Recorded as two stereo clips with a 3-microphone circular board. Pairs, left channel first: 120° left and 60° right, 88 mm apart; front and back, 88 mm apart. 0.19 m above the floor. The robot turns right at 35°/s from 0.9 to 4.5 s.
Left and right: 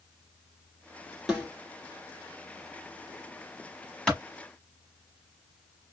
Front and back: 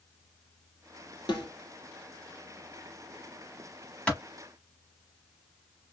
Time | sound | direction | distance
1.3 | a snare drum | 25° left | 1.9 m
4.1 | a clap | 50° left | 1.1 m